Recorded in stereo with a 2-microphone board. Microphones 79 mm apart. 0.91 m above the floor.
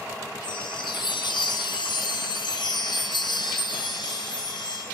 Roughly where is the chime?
Left.